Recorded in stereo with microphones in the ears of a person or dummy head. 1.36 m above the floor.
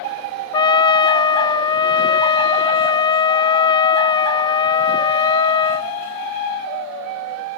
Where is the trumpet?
20° left (ahead or behind).